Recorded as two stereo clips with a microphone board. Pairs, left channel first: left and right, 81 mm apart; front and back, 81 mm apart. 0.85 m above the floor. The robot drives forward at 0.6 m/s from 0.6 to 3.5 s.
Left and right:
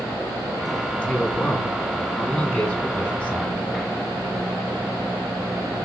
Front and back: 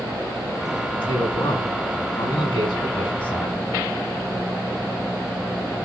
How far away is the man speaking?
About 6.5 m.